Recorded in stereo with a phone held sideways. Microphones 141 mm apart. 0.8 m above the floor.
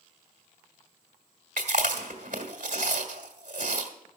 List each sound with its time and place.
1.6 s chewing: 75° right (ahead or behind), 1.5 m